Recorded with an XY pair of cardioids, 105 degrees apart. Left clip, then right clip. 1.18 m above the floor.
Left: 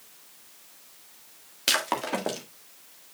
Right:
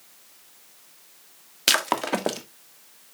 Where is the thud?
No thud in this recording.